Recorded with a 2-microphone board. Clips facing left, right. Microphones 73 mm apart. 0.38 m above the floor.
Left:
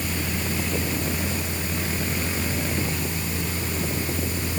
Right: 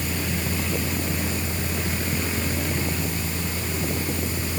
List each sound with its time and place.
Only background noise.